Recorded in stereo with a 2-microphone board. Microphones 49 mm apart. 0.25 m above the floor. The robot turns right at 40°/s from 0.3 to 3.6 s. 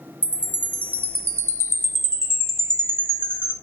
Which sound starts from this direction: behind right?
A chime, at 0.2 s.